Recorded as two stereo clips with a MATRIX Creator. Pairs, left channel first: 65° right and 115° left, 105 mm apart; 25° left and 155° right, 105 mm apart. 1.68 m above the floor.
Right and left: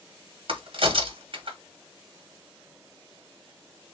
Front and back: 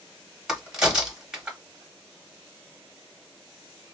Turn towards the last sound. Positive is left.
turn(degrees=120)